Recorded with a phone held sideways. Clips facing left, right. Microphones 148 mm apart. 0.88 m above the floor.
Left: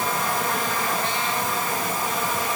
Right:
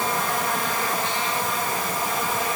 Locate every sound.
Only background noise.